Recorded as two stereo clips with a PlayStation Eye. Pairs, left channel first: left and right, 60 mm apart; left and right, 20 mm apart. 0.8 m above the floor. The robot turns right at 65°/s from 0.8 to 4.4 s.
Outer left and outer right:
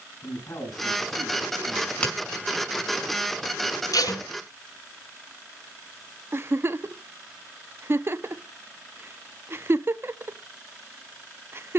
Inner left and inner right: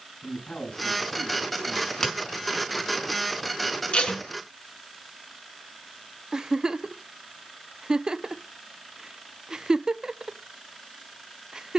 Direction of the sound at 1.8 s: 5° right (ahead or behind).